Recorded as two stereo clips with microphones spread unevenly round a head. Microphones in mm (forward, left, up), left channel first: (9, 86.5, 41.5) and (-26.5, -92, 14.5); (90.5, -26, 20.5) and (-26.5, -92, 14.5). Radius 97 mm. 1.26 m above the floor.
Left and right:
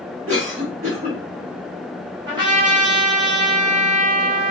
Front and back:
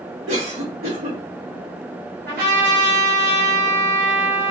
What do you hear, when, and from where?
0.3 s a cough: 155° right, 2.5 m
2.3 s a trumpet: 170° right, 2 m